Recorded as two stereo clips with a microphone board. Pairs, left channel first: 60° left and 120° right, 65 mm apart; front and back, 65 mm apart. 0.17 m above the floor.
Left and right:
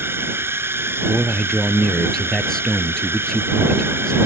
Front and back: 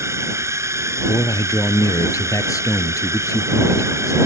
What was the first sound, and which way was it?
A drone, 160° right.